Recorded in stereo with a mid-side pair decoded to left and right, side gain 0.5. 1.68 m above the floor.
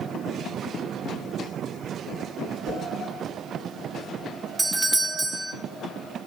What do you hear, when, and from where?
2.6 s a whoosh: 60° right, 6 m
4.6 s a doorbell: 15° right, 0.8 m